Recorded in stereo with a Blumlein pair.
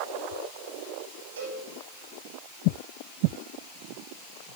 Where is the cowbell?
65° right, 4.5 m.